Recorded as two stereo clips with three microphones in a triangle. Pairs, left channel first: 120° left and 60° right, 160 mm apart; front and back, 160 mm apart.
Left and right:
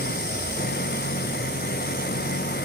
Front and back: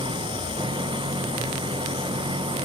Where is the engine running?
120° left.